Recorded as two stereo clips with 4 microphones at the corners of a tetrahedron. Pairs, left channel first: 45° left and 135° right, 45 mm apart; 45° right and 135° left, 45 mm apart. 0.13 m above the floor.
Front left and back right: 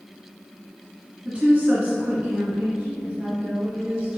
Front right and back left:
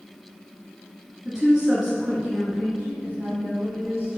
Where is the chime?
No chime in this recording.